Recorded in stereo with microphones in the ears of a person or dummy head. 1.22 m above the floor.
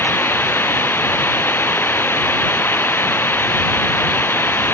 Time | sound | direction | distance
0.0 | running water | 10° left (ahead or behind) | ?